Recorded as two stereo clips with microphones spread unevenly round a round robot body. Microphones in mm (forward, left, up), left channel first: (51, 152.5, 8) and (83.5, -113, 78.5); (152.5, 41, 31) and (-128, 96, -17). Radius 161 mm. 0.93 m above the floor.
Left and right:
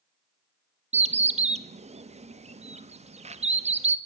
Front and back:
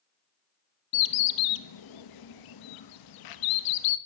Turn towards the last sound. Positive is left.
turn(degrees=-10)